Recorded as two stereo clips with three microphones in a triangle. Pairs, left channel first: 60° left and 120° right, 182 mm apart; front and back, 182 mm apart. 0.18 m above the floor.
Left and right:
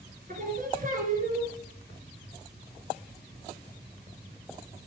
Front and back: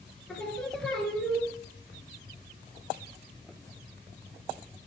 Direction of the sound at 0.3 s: 85° right.